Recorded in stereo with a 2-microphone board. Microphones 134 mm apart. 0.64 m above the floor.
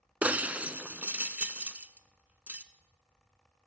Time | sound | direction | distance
0.2 | breaking glass | 15° right (ahead or behind) | 0.8 m